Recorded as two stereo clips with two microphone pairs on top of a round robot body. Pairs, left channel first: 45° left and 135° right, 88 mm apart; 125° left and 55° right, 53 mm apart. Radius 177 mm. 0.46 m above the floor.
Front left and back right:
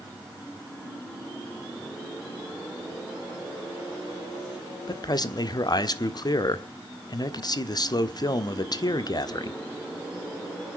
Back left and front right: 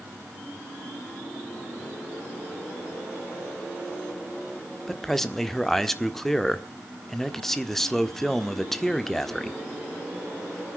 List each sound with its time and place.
4.9 s a man speaking: 45° left, 1.7 m